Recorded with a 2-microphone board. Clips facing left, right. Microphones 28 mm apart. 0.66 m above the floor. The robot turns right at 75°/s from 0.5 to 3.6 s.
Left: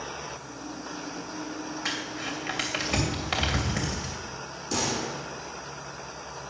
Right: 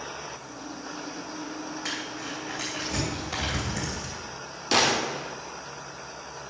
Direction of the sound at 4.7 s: 65° right (ahead or behind).